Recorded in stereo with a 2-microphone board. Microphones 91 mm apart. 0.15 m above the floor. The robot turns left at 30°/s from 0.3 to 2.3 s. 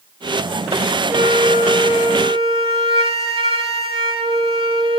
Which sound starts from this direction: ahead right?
A flute, at 1.1 s.